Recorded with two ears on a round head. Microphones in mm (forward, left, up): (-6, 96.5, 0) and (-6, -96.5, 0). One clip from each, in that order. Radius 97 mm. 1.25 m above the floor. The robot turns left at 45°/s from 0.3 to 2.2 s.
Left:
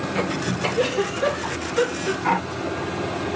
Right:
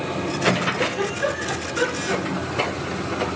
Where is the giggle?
60° left (ahead or behind), 6.5 m; by 2.8 s 5° right (ahead or behind), 6.5 m.